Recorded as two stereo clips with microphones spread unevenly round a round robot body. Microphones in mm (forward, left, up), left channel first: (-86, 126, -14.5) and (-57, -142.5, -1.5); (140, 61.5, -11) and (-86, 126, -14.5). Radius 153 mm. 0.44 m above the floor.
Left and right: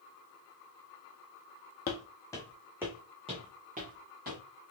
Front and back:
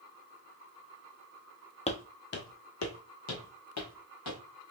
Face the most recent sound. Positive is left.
turn(degrees=-25)